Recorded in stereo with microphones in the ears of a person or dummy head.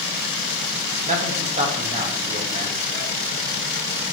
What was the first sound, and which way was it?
A man speaking, 40° right (ahead or behind).